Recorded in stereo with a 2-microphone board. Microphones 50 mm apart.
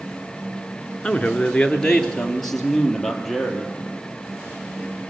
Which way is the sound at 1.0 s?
20° left (ahead or behind).